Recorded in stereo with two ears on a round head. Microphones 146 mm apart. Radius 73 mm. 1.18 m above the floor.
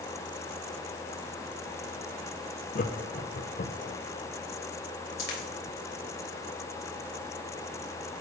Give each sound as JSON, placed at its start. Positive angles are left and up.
{"t": 2.8, "sound": "laughter", "side_deg": 55, "distance_m": 0.7}
{"t": 5.2, "sound": "a dropped coin", "side_deg": 70, "distance_m": 3.0}